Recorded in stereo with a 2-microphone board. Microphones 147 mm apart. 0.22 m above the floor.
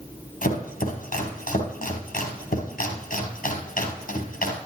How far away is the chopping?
About 3 m.